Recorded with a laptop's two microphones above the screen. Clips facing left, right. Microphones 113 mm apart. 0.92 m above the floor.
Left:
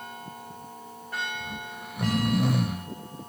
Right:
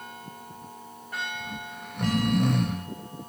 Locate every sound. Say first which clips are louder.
1.4 s snoring: even; 5° left (ahead or behind), 0.5 m